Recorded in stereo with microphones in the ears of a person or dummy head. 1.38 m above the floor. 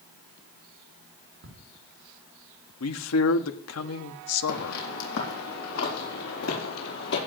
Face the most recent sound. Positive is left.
turn(degrees=70)  # may be behind; listen again after turning